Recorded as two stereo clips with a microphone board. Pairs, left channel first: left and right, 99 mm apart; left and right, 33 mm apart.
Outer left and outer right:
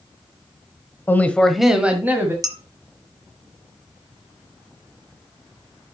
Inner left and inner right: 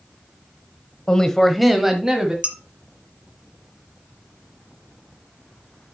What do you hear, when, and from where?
1.1 s a man speaking: 20° left (ahead or behind), 1.1 m; by 2.3 s 25° right (ahead or behind), 1.6 m
2.4 s dishes clattering: 40° right (ahead or behind), 1.5 m